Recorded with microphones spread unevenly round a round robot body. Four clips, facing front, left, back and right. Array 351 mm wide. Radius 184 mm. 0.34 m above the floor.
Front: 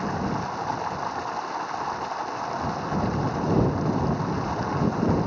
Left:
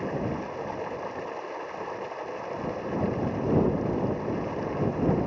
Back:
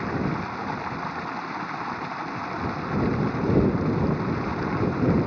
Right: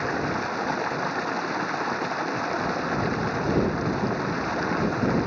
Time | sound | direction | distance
0.0 | running water | 125° right | ?